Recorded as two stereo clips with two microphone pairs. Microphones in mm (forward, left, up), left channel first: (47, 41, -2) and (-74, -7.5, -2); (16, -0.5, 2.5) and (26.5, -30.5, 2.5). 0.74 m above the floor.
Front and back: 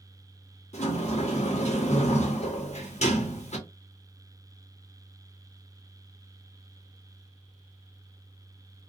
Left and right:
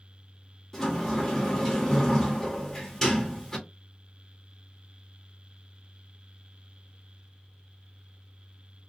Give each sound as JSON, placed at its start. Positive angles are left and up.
{"t": 0.7, "sound": "a sliding door", "azimuth_deg": 35, "distance_m": 0.8}